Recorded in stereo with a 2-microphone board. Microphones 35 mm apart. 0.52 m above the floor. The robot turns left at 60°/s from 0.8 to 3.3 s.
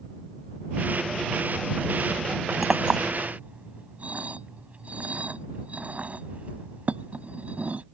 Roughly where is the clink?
Centre.